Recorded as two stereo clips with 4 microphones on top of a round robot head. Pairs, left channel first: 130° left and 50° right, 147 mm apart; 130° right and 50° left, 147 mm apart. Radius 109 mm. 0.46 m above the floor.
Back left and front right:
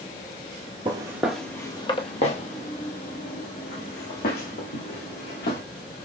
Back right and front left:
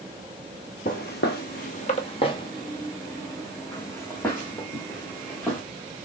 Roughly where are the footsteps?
Right.